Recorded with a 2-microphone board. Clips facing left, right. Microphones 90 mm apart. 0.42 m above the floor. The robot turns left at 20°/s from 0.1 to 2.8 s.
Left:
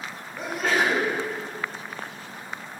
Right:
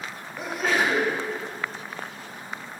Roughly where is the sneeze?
Centre.